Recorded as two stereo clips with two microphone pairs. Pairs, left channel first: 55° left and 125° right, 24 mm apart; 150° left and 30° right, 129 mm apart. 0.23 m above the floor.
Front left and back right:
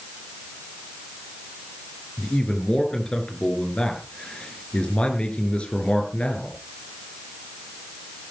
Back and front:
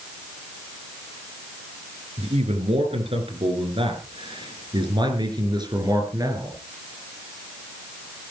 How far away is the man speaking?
About 4 m.